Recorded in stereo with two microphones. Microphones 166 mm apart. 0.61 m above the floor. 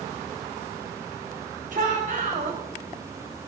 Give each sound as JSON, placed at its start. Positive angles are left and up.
{"t": 1.7, "sound": "a shout", "side_deg": -50, "distance_m": 2.0}